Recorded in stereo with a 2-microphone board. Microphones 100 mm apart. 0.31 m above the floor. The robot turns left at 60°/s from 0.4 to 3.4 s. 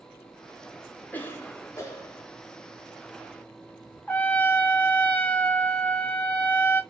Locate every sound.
1.1 s a cough: 20° left (ahead or behind), 1.0 m; by 2.3 s 25° left (ahead or behind), 1.0 m
4.1 s a trumpet: 15° left (ahead or behind), 0.6 m